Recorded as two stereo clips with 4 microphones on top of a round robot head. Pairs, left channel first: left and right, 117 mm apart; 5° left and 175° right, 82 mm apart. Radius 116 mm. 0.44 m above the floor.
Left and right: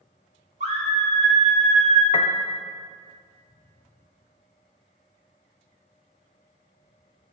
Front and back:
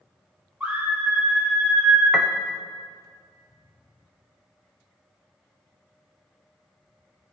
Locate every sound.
0.6 s a scream: 100° right, 2.5 m
2.1 s a piano: 90° left, 0.7 m